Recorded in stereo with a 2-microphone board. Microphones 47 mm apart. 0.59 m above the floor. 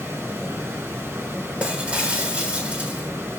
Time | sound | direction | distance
0.0 | running water | 65° right (ahead or behind) | 2.5 m
1.6 | breaking glass | 25° right (ahead or behind) | 2 m